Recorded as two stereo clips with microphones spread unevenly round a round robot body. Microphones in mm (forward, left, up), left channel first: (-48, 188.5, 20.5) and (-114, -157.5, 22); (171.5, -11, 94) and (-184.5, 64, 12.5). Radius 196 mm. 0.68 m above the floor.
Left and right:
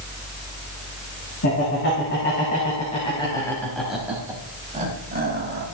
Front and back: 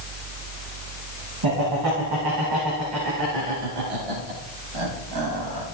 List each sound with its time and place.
1.4 s laughter: 130° left, 5 m; by 5.6 s 160° right, 4 m